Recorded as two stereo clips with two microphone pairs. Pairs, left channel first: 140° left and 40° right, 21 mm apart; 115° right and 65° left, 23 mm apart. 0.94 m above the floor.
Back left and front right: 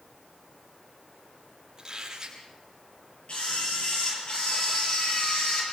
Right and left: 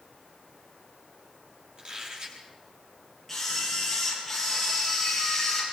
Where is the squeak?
20° left, 7 m.